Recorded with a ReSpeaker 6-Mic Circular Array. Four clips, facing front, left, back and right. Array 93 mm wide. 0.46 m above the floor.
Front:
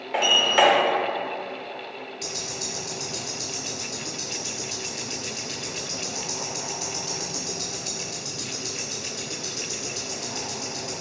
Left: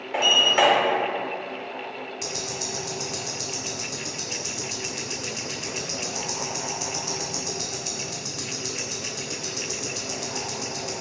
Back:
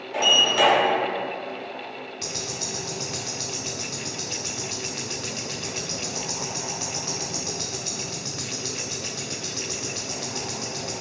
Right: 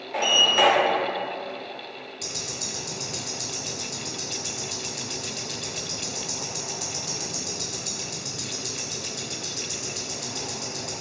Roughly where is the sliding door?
Ahead.